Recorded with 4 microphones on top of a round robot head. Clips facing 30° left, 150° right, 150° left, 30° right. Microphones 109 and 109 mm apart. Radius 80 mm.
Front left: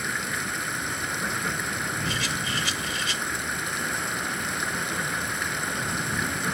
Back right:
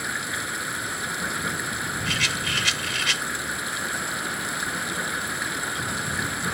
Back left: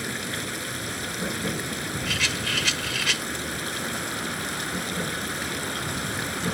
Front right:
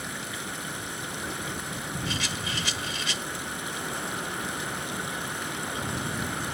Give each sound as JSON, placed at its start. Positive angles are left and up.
{"t": 0.0, "sound": "running water", "azimuth_deg": 125}
{"t": 2.1, "sound": "a rattle", "azimuth_deg": 180}